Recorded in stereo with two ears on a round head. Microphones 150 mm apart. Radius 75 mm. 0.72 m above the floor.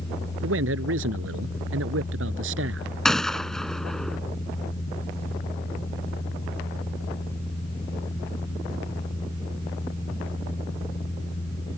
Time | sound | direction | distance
0.4 | a man speaking | 85° right | ?
3.0 | a gunshot | 5° left (ahead or behind) | ?